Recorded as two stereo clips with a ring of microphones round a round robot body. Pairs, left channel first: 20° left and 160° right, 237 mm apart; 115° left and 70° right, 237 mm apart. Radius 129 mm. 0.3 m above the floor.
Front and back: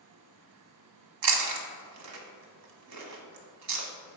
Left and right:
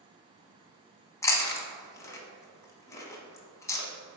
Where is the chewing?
170° right, 1.1 m.